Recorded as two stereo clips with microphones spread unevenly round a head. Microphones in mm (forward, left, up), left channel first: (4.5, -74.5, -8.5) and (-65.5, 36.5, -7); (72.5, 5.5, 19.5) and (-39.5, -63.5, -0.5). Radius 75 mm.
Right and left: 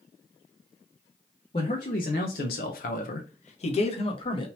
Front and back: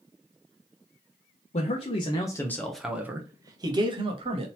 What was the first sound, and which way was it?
A man speaking, 5° right.